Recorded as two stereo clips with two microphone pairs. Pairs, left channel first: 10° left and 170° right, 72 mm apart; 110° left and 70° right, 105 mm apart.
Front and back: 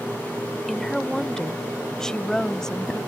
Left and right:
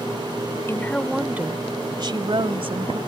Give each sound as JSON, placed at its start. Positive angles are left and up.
{"t": 0.7, "sound": "a woman speaking", "azimuth_deg": 95}